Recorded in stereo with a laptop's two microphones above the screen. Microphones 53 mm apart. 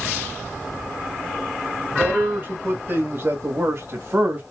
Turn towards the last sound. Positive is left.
turn(degrees=-40)  # may be behind; listen again after turning